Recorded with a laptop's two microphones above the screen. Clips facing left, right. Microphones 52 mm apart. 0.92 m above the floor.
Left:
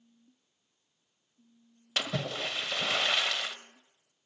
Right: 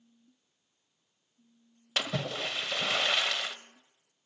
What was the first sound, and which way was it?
A splash, 10° right (ahead or behind).